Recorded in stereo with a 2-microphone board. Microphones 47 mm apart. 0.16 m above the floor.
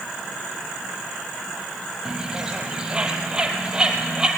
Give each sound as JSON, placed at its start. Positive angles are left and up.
{"t": 2.0, "sound": "a bird", "side_deg": -15, "distance_m": 2.5}